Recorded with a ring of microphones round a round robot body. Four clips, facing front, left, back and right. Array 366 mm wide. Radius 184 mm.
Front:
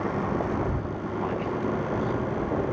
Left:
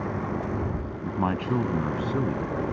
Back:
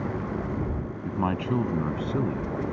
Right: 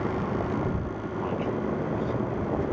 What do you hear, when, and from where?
1.1 s a man speaking: 130° left; by 2.5 s 135° left